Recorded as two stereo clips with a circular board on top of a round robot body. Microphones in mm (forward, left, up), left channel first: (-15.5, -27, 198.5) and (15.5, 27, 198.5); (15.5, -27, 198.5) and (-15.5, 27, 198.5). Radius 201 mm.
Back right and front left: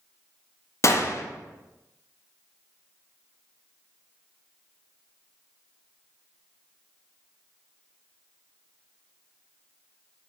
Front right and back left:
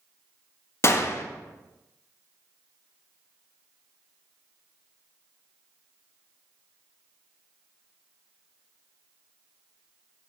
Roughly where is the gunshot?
Right.